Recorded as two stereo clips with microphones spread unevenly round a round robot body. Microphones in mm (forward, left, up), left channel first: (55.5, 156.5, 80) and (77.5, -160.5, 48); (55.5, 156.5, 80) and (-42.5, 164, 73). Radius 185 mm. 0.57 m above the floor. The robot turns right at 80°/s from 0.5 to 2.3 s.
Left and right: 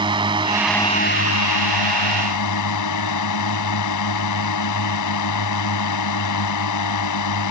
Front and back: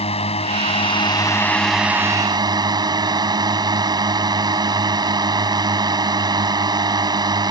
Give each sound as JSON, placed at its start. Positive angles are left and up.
{"t": 0.0, "sound": "a drone", "azimuth_deg": -10}